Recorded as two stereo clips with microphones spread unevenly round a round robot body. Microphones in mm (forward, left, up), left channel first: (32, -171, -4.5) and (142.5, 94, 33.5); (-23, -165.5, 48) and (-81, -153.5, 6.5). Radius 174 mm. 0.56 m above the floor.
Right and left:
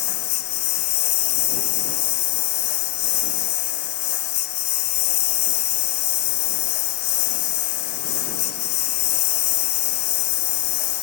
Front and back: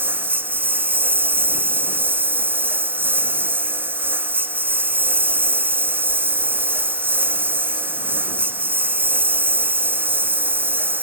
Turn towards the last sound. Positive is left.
turn(degrees=-135)